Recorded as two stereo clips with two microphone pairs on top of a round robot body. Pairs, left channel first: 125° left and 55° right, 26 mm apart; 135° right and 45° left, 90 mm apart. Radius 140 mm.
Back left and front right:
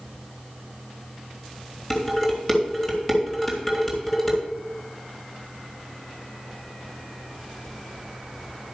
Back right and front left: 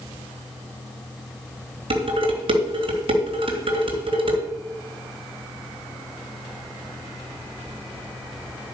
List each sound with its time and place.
1.9 s dishes clattering: 45° left, 3 m